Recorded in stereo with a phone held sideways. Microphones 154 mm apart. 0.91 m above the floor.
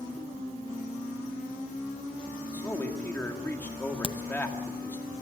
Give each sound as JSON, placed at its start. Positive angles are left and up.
{"t": 2.5, "sound": "a man speaking", "side_deg": 15, "distance_m": 2.0}
{"t": 4.0, "sound": "a crack", "side_deg": 30, "distance_m": 0.6}